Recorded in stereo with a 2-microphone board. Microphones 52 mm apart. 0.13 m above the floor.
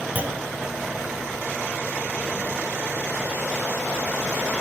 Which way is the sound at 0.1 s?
30° right (ahead or behind).